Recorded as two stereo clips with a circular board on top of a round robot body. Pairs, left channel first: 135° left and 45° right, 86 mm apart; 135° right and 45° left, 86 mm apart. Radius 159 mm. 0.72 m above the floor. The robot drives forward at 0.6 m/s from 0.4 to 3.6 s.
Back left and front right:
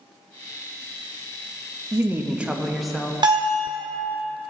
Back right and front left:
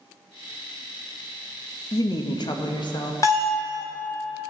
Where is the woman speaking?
100° right, 0.9 m; by 3.1 s 140° right, 1.2 m.